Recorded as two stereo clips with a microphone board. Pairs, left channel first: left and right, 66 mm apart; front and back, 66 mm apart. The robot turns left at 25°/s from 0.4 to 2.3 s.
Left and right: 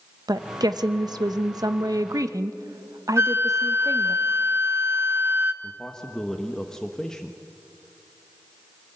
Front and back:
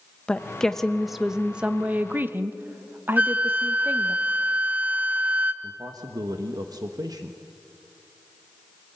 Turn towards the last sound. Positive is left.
turn(degrees=170)